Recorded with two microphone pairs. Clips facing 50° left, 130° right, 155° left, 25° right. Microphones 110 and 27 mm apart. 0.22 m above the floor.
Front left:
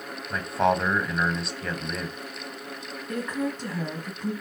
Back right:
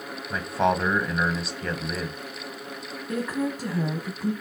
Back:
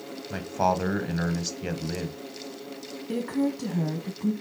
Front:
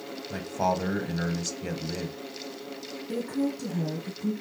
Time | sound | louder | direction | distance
0.3 | a man speaking | even, back 2 dB | 145° left | 1.1 m
3.1 | a woman speaking | back right 2 dB, back 2 dB | 150° left | 1.4 m